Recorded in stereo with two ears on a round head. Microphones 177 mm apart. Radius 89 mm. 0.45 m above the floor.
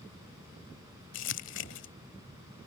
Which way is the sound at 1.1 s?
65° left (ahead or behind).